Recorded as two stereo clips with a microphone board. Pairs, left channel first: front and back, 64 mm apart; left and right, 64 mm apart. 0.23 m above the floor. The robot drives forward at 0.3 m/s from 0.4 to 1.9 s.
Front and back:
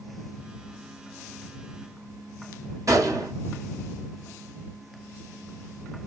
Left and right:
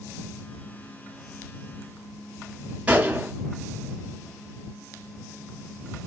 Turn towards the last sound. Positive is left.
turn(degrees=-160)